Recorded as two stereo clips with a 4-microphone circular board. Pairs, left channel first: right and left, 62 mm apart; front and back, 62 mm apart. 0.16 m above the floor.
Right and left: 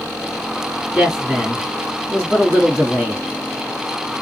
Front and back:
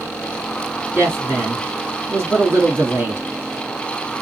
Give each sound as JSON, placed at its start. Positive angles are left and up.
{"t": 0.9, "sound": "a woman speaking", "azimuth_deg": 155, "distance_m": 2.5}